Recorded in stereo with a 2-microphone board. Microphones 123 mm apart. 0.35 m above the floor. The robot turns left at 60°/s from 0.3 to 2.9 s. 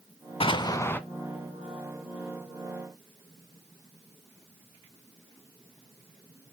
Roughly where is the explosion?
Ahead left.